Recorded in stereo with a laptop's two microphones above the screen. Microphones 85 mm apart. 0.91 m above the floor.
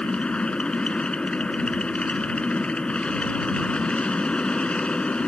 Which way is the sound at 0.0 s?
10° left (ahead or behind).